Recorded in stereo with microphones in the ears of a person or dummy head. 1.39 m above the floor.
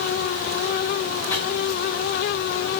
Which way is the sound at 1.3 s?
10° left (ahead or behind).